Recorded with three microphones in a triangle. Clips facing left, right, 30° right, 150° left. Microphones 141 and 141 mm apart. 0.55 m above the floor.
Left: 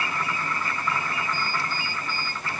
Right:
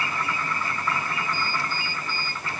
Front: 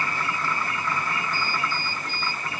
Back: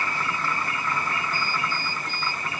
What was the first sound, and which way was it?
Only background noise.